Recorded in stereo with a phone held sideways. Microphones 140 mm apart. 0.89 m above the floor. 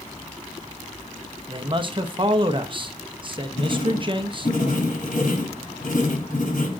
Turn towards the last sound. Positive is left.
turn(degrees=65)  # may be behind; listen again after turning